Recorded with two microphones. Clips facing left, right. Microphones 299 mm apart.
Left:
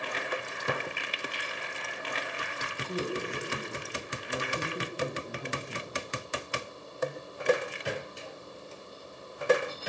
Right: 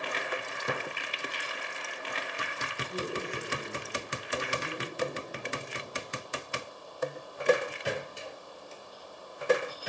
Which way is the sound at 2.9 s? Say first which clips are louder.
Left 3 dB; 65° left (ahead or behind).